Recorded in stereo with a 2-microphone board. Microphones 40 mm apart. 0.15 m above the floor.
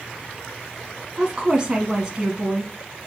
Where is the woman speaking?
15° right (ahead or behind), 1.1 m.